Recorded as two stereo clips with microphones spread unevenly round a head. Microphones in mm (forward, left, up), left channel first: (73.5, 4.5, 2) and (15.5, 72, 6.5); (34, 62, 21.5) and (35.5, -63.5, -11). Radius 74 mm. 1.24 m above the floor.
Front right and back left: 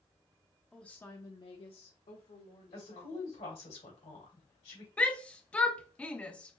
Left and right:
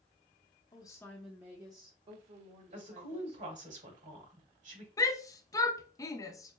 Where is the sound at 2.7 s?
70° right, 2.5 m.